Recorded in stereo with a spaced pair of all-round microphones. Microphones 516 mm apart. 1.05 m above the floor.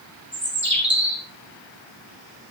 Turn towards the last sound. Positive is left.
turn(degrees=-20)  # may be behind; listen again after turning